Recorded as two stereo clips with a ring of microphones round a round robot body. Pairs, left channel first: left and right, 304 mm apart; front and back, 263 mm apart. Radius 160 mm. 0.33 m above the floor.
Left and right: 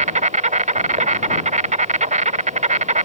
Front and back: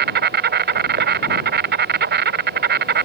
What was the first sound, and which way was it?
An insect, 150° right.